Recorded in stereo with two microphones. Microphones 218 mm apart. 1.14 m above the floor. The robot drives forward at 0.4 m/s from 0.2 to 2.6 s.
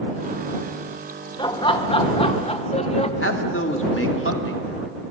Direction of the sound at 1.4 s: 20° left (ahead or behind).